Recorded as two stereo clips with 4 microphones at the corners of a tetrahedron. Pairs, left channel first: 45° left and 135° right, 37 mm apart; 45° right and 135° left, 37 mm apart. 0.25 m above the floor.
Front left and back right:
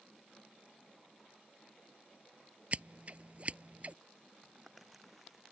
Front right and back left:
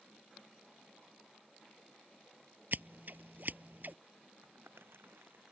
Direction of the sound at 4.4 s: 135° left.